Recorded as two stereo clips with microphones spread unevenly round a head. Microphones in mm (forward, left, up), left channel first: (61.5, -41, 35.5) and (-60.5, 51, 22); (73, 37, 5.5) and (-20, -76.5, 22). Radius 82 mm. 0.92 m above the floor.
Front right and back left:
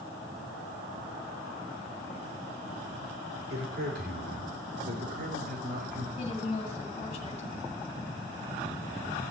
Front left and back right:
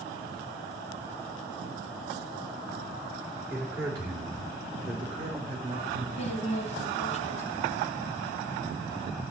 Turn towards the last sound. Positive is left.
turn(degrees=15)